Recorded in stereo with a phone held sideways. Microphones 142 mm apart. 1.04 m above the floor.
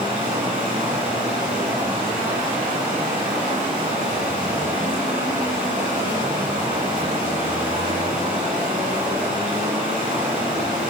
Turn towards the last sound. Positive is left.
turn(degrees=-85)